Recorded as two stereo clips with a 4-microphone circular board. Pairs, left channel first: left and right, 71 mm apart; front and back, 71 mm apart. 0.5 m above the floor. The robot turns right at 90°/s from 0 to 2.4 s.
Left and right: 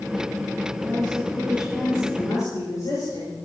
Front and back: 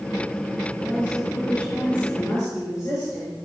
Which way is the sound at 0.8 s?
95° right.